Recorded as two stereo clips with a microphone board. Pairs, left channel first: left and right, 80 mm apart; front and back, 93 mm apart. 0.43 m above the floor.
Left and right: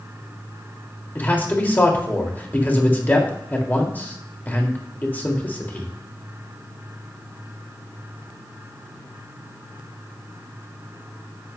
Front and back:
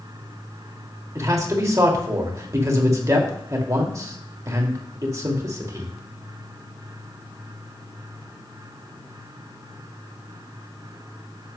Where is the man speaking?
145° left, 1.6 m.